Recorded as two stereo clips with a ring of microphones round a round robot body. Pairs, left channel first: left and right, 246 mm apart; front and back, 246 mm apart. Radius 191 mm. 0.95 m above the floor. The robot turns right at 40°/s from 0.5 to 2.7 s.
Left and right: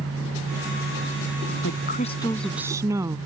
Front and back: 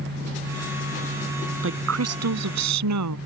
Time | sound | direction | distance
1.6 | a woman speaking | 145° left | ?